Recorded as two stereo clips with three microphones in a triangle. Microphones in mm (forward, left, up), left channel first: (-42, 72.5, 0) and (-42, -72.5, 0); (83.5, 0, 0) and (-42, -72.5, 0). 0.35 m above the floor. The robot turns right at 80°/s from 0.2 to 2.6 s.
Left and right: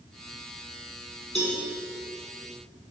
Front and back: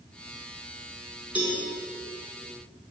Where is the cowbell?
130° left, 1.7 m; by 1.6 s 150° left, 1.7 m.